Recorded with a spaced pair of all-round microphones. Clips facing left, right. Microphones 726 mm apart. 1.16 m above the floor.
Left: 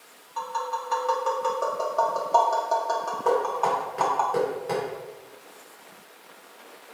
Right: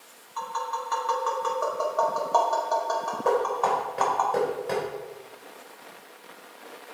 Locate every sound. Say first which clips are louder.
0.4 s tapping: left 2 dB; 55° left (ahead or behind), 2 m
3.2 s knocking: even; 10° right (ahead or behind), 4 m